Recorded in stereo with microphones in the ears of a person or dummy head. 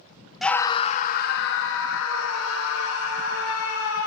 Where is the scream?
Centre (ahead or behind), 0.6 m; by 4.1 s 85° left, 2.5 m.